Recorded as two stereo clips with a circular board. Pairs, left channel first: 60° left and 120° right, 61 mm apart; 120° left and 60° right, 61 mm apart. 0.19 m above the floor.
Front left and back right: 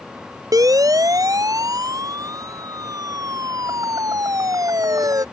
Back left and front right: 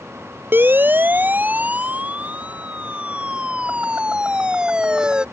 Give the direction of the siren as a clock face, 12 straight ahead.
4 o'clock.